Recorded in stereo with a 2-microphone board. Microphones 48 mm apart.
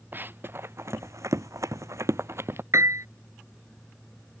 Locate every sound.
0.1 s running footsteps: 40° right (ahead or behind); by 2.6 s 50° right (ahead or behind)
2.7 s a piano: 75° right (ahead or behind)